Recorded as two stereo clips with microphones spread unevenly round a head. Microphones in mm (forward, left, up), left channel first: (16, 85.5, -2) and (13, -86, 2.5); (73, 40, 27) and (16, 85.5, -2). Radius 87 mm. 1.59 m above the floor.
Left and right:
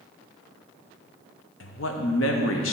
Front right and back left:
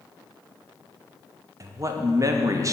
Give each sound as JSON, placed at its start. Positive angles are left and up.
{"t": 1.6, "sound": "a man speaking", "azimuth_deg": 105, "distance_m": 0.8}